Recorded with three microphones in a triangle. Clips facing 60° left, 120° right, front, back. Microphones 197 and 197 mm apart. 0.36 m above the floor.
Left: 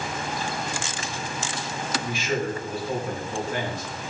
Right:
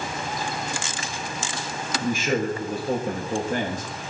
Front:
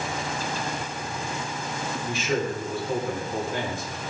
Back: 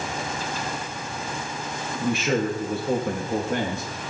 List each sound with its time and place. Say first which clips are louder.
2.0 s a man speaking: right 5 dB, back 5 dB; 160° right, 5 m